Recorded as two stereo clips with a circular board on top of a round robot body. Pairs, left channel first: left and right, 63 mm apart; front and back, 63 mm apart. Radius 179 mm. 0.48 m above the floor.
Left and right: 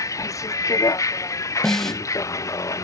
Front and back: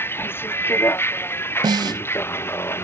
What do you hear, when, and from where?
0.0 s a vehicle: 55° left
1.6 s a snare drum: 175° left